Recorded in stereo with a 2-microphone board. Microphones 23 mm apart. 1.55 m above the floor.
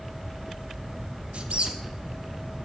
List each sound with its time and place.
1.3 s a squeak: 50° right (ahead or behind), 1.0 m